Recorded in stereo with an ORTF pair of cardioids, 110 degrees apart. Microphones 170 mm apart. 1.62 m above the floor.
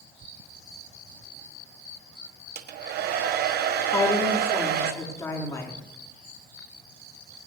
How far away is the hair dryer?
About 1.3 m.